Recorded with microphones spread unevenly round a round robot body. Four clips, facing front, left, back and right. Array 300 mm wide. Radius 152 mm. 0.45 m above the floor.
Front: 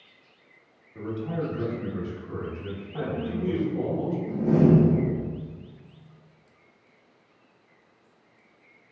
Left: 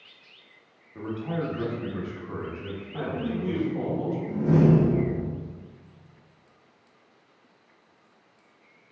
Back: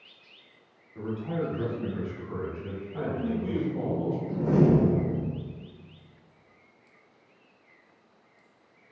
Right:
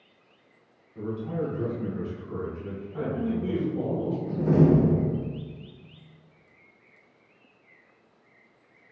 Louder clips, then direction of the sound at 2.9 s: Right 1 dB, even; 15° left.